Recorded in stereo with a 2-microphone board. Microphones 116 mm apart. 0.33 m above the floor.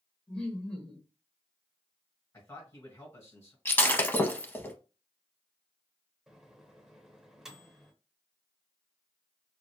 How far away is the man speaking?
About 2 m.